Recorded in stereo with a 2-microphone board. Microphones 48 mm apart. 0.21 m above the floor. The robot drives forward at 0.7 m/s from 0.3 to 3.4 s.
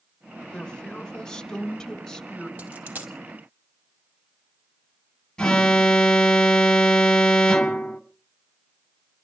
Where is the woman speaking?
15° left (ahead or behind), 1.1 m; by 2.5 s 10° left (ahead or behind), 2 m.